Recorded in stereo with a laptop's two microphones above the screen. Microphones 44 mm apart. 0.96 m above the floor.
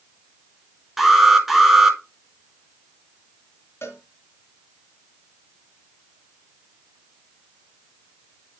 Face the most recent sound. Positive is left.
turn(degrees=60)  # may be behind; listen again after turning